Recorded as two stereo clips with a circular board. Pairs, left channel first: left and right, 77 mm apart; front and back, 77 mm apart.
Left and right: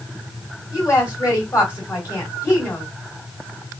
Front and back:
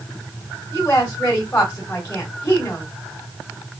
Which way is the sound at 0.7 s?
50° left.